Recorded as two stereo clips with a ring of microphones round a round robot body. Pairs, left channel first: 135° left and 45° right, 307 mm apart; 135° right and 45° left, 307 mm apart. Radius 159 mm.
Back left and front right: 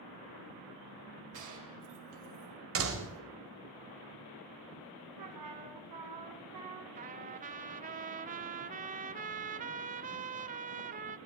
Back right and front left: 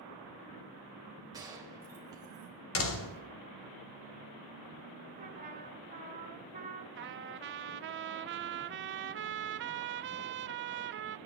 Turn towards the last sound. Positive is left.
turn(degrees=10)